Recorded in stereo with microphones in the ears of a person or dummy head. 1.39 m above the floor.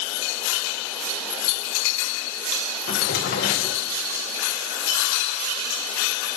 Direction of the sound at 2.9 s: 60° left (ahead or behind).